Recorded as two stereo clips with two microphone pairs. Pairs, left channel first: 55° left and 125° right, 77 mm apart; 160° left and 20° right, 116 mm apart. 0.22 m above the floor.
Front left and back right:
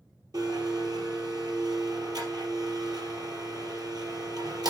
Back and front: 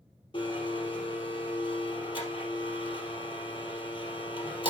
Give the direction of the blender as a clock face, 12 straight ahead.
5 o'clock.